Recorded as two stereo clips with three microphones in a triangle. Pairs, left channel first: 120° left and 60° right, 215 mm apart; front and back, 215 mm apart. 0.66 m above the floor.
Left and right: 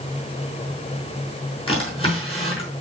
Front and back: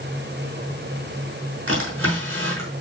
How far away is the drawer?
About 5 m.